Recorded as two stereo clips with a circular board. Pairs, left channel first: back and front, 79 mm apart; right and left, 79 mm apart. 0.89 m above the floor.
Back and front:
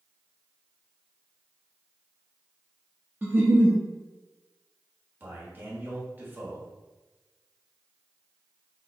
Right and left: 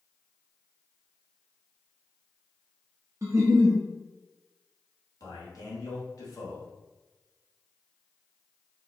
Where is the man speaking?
60° right, 1.4 m.